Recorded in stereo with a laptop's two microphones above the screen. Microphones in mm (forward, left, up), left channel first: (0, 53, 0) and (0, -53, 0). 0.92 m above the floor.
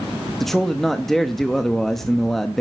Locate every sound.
0.4 s a man speaking: 5° left (ahead or behind), 0.9 m